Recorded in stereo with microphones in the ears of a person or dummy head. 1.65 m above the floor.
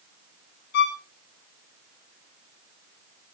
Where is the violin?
60° left (ahead or behind), 1.7 m.